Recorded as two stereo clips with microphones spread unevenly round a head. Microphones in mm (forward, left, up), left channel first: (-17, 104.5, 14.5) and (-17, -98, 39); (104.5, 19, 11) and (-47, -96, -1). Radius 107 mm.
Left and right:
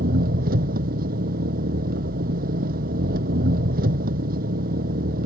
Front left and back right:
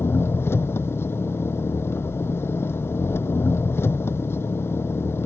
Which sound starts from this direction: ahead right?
An engine running, at 0.0 s.